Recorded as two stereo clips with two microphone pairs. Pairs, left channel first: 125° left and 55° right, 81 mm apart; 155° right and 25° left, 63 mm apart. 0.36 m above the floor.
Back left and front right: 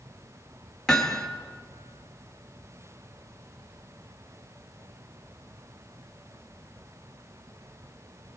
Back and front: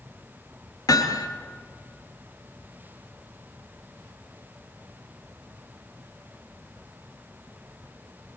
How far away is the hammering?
About 2.5 m.